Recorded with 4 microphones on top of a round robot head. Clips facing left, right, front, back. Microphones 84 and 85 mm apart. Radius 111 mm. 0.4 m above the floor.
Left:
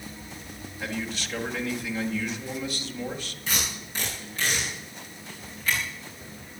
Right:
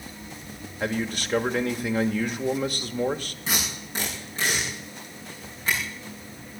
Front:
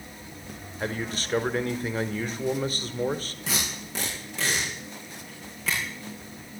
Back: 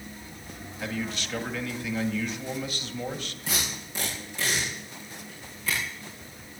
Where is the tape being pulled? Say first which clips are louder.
Right 2 dB, front 1 dB; 25° right, 8 m.